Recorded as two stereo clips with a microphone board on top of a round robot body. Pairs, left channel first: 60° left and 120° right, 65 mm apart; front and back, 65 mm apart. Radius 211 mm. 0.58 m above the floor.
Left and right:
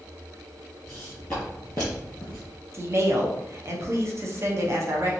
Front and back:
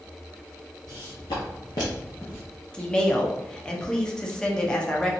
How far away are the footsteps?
About 1.4 m.